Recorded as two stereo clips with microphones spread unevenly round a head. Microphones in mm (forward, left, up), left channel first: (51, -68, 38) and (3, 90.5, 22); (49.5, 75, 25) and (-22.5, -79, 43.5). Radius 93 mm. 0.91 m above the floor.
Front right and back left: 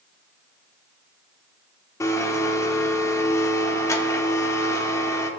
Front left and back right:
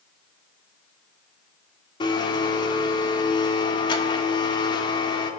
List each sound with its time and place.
2.0 s a blender: straight ahead, 0.9 m